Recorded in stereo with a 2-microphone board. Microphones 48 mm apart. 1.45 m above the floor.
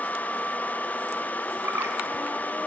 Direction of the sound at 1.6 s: 65° right (ahead or behind).